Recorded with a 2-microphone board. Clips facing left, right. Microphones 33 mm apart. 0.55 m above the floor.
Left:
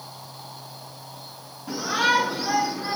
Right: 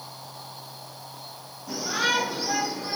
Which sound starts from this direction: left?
A shout, at 1.7 s.